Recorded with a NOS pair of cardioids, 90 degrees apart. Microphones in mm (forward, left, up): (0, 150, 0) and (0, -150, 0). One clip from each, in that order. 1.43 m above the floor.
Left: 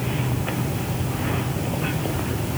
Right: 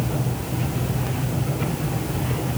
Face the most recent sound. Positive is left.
No sound to turn to.